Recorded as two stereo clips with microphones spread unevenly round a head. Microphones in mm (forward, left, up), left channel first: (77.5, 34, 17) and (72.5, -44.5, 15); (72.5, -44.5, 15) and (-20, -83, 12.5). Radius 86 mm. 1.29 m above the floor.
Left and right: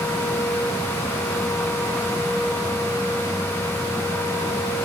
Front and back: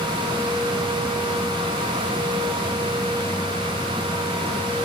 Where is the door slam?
No door slam in this recording.